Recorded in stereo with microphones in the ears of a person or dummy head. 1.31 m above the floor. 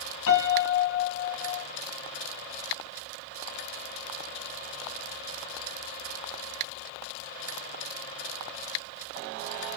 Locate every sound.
0.3 s a piano: 70° left (ahead or behind), 3 m